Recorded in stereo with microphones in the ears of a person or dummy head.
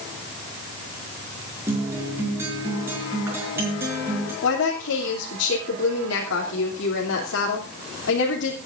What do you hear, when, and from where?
1.7 s a guitar: 15° right (ahead or behind), 5 m
4.4 s a woman speaking: 90° left, 3 m